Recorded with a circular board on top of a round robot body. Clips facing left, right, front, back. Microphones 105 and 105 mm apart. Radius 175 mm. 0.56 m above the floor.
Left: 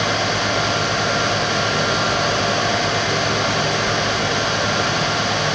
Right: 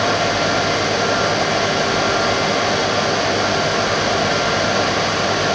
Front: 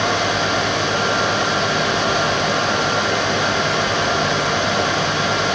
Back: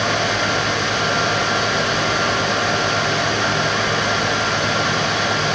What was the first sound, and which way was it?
Only background noise.